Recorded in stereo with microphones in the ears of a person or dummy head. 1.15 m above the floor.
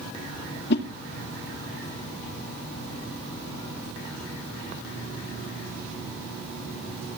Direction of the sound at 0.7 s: 60° left (ahead or behind).